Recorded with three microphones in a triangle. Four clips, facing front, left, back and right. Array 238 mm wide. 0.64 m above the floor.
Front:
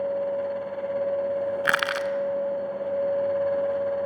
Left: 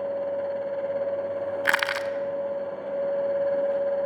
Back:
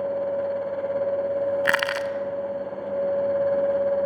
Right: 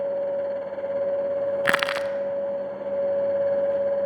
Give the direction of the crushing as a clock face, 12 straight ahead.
3 o'clock.